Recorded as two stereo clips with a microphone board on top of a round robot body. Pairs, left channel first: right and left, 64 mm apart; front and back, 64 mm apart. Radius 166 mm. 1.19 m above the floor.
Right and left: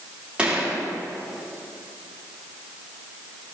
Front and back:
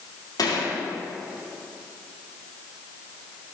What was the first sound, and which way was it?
A gunshot, 20° left.